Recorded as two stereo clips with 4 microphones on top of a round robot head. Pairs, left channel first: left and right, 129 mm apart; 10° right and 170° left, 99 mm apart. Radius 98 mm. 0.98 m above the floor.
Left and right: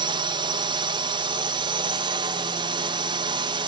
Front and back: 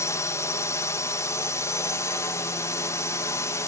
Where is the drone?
55° right.